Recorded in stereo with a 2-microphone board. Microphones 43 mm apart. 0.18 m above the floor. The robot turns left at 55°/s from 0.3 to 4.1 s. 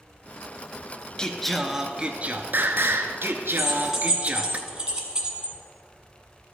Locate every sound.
1.2 s singing: 20° left, 0.6 m; by 4.6 s 140° right, 0.6 m
3.6 s keys jangling: 5° left (ahead or behind), 1.3 m; by 5.6 s 15° right (ahead or behind), 1.3 m